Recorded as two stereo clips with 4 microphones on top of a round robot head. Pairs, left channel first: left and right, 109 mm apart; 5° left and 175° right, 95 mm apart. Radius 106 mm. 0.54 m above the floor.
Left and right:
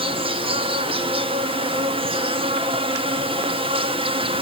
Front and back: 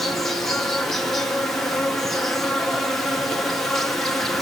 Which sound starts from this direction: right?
An insect, at 0.0 s.